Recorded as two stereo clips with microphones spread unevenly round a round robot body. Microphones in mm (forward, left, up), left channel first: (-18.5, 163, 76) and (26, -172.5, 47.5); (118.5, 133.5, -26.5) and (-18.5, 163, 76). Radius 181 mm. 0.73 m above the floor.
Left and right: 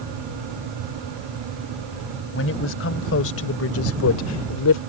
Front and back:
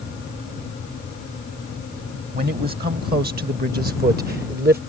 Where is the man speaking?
155° left; by 4.8 s 140° left.